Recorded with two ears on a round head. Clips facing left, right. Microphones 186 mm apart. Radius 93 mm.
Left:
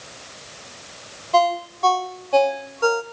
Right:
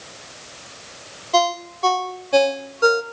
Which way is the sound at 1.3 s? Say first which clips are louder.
Left 1 dB; 20° right (ahead or behind).